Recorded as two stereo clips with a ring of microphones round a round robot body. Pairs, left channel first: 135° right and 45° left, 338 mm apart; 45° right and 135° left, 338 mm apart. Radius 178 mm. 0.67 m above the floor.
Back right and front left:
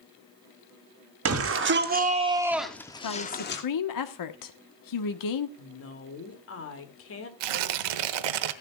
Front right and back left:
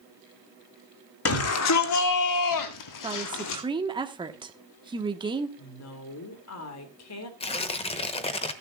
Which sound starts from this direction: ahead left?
Tearing paper, at 7.4 s.